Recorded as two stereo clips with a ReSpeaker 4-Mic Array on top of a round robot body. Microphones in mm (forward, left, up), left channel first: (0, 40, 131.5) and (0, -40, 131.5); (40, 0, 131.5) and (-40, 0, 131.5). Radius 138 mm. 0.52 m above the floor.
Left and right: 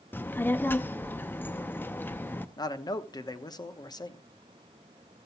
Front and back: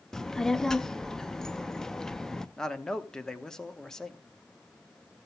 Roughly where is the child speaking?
Left.